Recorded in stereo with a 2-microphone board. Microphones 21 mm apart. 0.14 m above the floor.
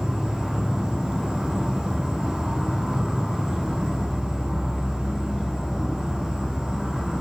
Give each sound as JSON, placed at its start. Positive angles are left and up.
{"t": 0.0, "sound": "an insect", "side_deg": -65, "distance_m": 0.9}